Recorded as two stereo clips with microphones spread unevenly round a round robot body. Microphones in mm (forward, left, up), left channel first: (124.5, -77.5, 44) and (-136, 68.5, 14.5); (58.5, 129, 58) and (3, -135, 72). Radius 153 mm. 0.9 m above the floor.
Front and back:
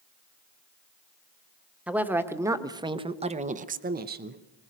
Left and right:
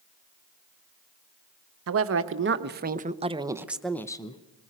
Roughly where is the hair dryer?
I don't hear a hair dryer.